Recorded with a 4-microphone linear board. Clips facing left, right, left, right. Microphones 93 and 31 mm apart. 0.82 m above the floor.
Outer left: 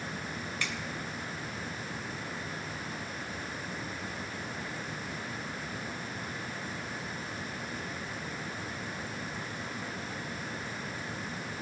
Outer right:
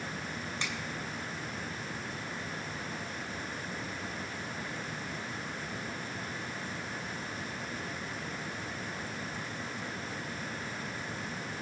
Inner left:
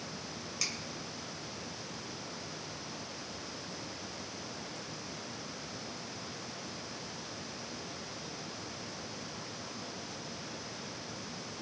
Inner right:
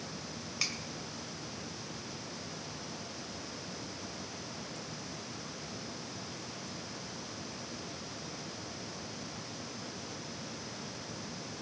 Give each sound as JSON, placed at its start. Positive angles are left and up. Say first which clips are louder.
{"t": 0.6, "sound": "a finger snap", "louder": "outer left 1 dB, inner right 2 dB", "side_deg": -25, "distance_m": 2.5}